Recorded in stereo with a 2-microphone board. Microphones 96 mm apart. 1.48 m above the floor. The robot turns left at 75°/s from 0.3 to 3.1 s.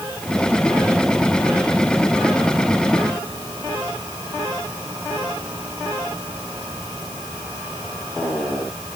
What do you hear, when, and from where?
Only background noise.